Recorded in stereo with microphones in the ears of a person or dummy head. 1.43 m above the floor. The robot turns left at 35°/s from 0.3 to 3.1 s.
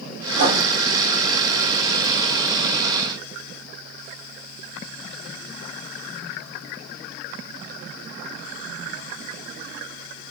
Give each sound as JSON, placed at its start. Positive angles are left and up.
{"t": 0.3, "sound": "writing", "side_deg": -75, "distance_m": 4.0}